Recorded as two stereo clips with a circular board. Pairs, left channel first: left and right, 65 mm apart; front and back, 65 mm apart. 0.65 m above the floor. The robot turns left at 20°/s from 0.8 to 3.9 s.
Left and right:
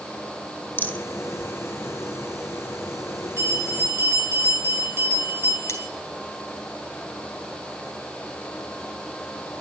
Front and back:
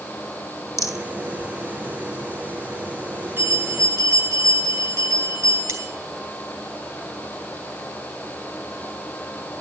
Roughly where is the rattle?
Ahead left.